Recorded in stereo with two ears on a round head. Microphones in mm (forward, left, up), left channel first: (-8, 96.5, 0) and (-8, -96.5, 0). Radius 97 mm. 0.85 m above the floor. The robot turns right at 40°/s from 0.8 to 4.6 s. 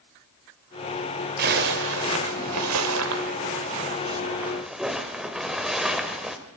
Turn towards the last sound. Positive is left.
turn(degrees=0)